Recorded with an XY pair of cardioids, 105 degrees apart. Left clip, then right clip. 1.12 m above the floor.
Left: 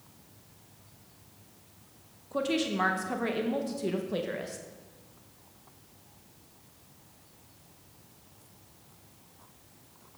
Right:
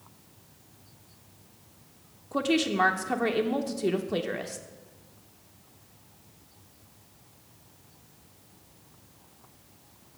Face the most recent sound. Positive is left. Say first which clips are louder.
# right 4 dB
turn(degrees=-25)